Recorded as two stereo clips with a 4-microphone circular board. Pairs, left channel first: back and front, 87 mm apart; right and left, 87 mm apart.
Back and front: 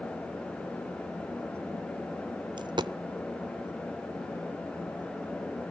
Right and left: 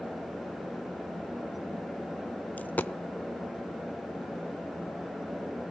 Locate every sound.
2.6 s a dropped coin: 20° right, 0.6 m